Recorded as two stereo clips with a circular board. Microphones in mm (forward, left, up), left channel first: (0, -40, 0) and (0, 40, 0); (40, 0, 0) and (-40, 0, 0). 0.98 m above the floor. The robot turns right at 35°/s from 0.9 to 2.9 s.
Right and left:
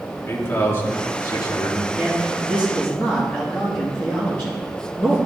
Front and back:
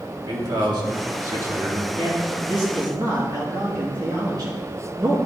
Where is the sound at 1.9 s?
Straight behind, 1.7 m; by 5.2 s 145° right, 1.7 m.